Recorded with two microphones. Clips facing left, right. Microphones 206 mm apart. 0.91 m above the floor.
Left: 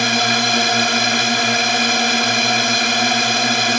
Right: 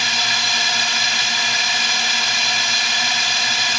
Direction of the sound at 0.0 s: 60° left (ahead or behind).